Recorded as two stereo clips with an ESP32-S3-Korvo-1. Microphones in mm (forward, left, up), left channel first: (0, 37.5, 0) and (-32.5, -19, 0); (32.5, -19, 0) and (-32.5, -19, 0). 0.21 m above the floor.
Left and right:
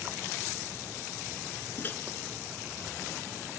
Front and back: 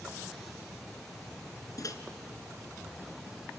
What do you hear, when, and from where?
1.8 s a microwave: 10° left, 1.8 m